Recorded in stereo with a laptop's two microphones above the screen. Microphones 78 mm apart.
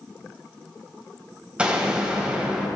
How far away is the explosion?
About 3.5 m.